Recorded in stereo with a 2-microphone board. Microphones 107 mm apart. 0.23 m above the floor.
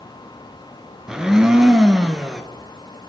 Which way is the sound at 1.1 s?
5° right (ahead or behind).